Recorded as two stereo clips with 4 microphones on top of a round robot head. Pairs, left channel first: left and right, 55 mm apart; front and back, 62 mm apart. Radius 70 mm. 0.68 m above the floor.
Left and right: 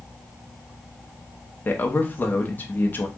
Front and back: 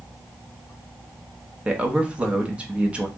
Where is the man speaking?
120° left, 1.1 m.